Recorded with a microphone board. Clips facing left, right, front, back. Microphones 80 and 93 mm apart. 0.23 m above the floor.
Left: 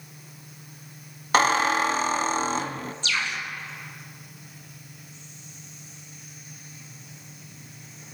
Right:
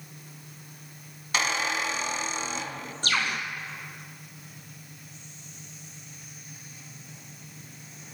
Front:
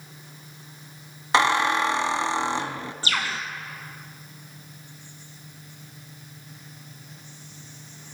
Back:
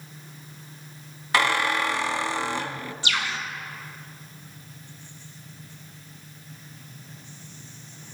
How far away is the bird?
About 2.5 m.